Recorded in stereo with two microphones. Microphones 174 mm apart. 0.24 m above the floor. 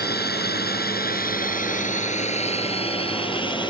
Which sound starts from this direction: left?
A drone, at 0.0 s.